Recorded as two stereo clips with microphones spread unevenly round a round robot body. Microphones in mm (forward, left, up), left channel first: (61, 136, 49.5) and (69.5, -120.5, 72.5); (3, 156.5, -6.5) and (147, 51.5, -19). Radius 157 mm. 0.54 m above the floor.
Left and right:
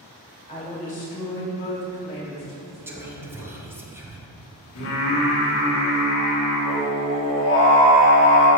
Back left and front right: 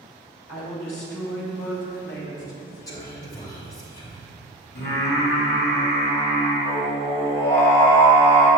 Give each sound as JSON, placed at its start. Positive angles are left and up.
{"t": 0.5, "sound": "a woman speaking", "azimuth_deg": 160, "distance_m": 1.9}
{"t": 2.9, "sound": "whispering", "azimuth_deg": -170, "distance_m": 1.0}
{"t": 4.8, "sound": "singing", "azimuth_deg": 120, "distance_m": 2.5}